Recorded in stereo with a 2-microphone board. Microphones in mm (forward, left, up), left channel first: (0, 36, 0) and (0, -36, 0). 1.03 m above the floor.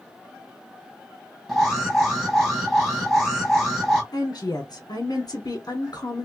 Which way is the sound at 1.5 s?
5° right (ahead or behind).